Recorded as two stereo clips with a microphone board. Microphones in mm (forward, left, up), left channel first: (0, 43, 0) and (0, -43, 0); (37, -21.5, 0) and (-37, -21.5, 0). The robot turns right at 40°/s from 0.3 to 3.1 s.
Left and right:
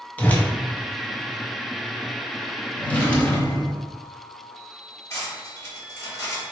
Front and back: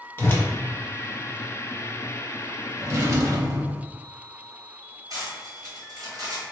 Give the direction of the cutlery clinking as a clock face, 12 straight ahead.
7 o'clock.